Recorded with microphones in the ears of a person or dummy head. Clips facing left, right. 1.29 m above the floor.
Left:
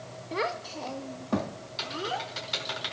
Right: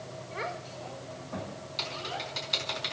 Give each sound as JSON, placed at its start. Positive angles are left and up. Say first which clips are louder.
{"t": 0.3, "sound": "a child speaking", "louder": "left 7 dB", "side_deg": 60, "distance_m": 1.1}
{"t": 1.8, "sound": "typing on a keyboard", "louder": "left 6 dB", "side_deg": 5, "distance_m": 4.0}